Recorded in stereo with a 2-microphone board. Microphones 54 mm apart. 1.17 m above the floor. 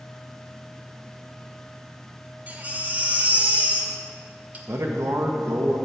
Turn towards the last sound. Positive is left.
turn(degrees=-65)  # may be behind; listen again after turning